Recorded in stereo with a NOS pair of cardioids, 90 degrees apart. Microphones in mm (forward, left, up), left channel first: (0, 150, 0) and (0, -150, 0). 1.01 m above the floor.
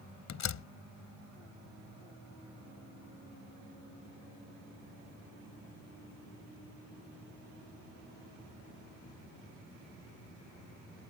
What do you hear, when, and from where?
0.3 s a door slam: 60° left